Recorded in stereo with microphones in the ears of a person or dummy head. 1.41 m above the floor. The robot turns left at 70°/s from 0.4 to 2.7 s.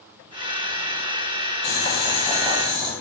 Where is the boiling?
55° left, 1.0 m; by 2.9 s 20° right, 1.0 m.